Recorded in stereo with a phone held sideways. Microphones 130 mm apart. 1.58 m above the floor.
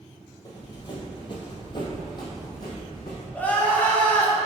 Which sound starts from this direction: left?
Running footsteps, at 0.5 s.